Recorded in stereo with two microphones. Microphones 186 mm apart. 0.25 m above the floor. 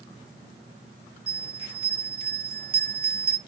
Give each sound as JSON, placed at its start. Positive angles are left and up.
{"t": 1.3, "sound": "a bell", "side_deg": -30, "distance_m": 1.7}